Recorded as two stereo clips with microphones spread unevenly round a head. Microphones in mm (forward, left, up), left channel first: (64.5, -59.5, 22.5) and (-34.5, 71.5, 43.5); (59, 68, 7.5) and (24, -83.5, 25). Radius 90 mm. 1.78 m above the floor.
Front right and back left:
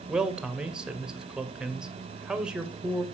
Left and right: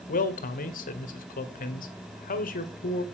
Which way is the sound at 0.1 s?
40° left.